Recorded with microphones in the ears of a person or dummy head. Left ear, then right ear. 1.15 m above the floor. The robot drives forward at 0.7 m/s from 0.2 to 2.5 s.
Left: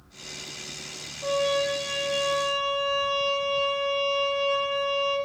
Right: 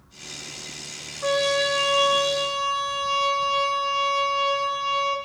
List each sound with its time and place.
1.2 s a trumpet: 55° right (ahead or behind), 1.2 m; by 5.2 s 40° right (ahead or behind), 1.5 m